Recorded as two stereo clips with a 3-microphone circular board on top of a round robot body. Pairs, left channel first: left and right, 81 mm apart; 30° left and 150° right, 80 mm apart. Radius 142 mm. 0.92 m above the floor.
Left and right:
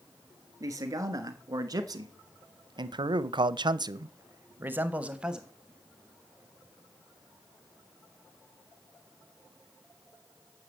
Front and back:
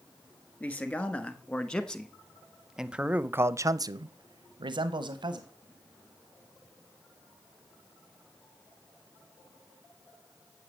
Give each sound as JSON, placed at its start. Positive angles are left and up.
{"t": 0.6, "sound": "a man speaking", "azimuth_deg": -40, "distance_m": 1.9}